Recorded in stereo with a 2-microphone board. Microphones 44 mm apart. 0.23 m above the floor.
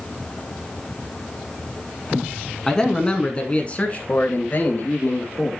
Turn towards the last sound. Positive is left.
turn(degrees=45)  # may be behind; listen again after turning